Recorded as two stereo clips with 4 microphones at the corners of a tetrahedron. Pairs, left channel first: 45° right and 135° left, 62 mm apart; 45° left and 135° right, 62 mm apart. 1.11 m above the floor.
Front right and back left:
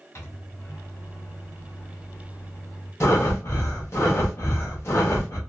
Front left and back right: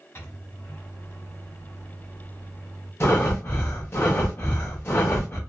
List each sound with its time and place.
0.1 s a microwave: 5° right, 1.4 m
3.0 s breathing: 5° right, 1.0 m